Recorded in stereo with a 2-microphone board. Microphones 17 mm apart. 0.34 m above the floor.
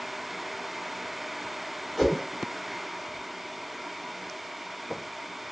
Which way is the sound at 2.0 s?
15° left (ahead or behind).